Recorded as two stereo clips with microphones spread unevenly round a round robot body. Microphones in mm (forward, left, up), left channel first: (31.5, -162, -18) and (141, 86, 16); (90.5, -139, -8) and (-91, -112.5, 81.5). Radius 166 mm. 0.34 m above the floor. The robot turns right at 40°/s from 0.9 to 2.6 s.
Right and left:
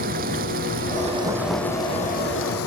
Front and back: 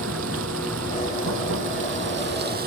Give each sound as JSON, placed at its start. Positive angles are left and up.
{"t": 0.0, "sound": "running water", "azimuth_deg": 130}